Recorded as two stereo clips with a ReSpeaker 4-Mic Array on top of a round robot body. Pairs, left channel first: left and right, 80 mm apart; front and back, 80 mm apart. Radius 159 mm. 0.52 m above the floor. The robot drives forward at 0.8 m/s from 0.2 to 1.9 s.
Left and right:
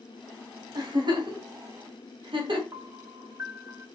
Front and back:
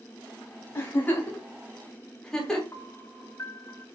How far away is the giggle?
About 3 m.